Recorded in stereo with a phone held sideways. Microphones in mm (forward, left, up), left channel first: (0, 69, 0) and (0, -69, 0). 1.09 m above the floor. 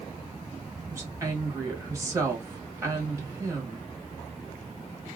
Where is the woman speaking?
20° right (ahead or behind), 1.2 m.